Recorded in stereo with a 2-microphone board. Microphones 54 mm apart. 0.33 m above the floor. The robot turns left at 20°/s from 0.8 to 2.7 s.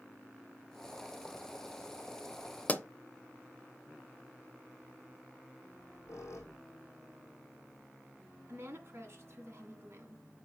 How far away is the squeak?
About 2.5 m.